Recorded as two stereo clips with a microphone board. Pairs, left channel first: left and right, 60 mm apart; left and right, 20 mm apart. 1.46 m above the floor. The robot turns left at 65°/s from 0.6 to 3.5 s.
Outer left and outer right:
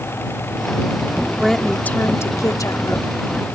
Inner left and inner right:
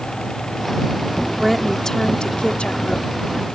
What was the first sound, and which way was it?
A woman speaking, straight behind.